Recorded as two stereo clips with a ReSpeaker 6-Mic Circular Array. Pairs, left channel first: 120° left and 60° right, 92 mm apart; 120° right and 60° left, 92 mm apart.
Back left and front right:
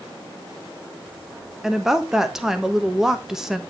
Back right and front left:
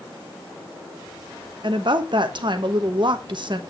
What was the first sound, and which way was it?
A woman speaking, 25° left.